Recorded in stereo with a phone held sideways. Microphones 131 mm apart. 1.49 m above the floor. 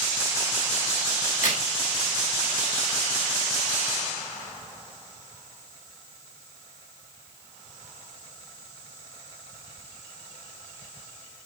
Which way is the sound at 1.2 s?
70° left (ahead or behind).